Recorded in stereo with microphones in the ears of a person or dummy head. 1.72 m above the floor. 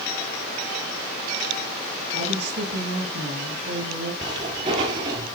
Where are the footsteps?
20° right (ahead or behind), 2 m.